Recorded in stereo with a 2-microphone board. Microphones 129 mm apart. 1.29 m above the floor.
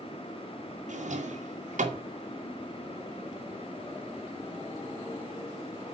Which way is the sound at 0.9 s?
75° right (ahead or behind).